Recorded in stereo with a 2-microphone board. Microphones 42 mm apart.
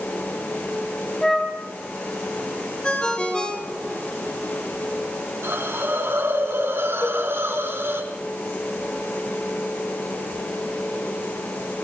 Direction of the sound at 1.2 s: 15° left (ahead or behind).